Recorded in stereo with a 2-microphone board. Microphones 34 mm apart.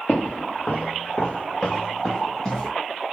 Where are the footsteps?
55° left (ahead or behind), 1.4 m; by 2.7 s 20° left (ahead or behind), 2.5 m.